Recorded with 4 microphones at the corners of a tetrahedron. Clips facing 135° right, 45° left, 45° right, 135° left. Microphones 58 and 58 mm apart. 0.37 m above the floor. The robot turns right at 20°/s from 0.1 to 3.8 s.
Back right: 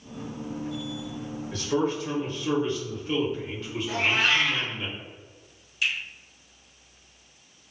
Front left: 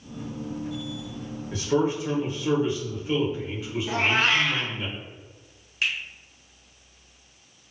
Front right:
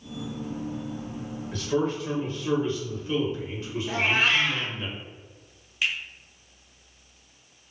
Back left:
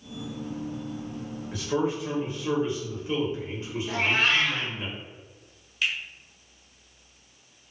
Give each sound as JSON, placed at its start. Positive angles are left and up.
{"t": 1.5, "sound": "a man speaking", "azimuth_deg": 75, "distance_m": 0.9}
{"t": 3.9, "sound": "a cat meowing", "azimuth_deg": 25, "distance_m": 0.5}
{"t": 5.8, "sound": "a finger snap", "azimuth_deg": 25, "distance_m": 0.9}